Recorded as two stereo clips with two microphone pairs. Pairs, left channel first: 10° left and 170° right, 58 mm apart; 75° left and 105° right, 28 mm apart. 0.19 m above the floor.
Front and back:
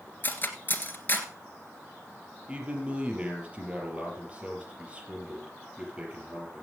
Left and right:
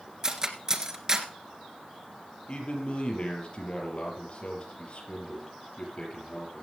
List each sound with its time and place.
0.2 s cutlery clinking: 45° right, 1.6 m
2.5 s a man speaking: 120° left, 4.5 m